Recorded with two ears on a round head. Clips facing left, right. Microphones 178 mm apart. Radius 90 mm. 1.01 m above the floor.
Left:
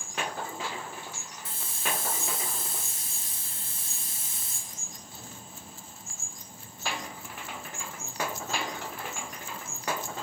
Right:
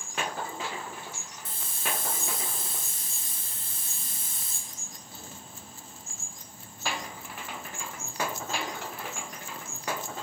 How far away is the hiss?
About 2 m.